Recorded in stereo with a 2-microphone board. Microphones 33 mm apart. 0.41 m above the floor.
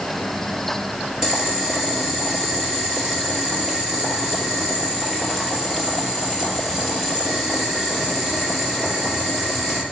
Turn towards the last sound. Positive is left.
turn(degrees=-15)  # may be behind; listen again after turning